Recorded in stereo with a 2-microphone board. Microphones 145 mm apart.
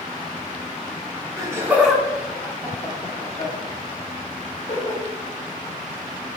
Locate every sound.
1.4 s laughter: 25° right (ahead or behind), 1.0 m; by 5.0 s 65° left (ahead or behind), 2 m